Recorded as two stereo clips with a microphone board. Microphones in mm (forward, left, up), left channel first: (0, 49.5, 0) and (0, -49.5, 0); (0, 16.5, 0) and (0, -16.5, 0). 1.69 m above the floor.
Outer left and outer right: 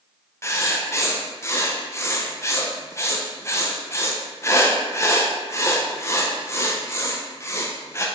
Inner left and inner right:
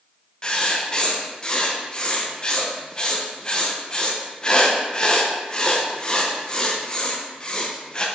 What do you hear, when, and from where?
0.4 s writing: 30° left (ahead or behind), 0.8 m